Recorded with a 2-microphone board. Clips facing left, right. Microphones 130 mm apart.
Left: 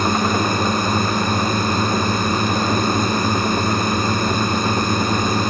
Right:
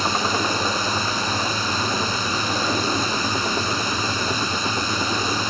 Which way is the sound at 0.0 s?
55° left (ahead or behind).